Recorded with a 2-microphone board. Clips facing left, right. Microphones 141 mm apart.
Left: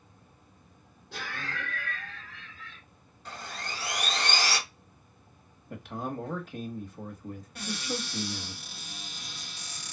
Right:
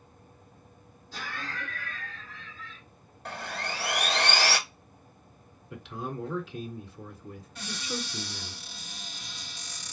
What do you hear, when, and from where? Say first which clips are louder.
1.1 s laughter: even; 70° left (ahead or behind), 2 m
3.2 s sawing: right 4 dB; 65° right (ahead or behind), 0.8 m
5.7 s a man speaking: left 1 dB; 50° left (ahead or behind), 1.1 m
7.5 s a cupboard door: left 1 dB; 65° left (ahead or behind), 1.9 m